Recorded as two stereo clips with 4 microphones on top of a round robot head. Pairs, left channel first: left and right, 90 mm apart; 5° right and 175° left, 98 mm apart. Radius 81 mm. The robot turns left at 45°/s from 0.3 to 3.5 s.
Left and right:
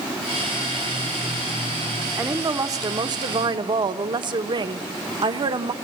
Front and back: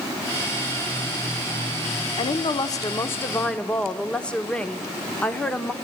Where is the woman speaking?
25° right, 1.1 m; by 5.7 s 85° right, 1.1 m.